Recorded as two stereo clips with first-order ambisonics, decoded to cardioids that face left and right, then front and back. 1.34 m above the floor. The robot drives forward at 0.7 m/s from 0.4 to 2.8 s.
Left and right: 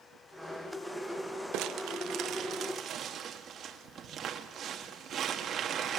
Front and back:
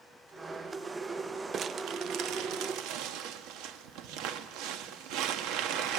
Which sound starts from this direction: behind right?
Crumpling, at 1.5 s.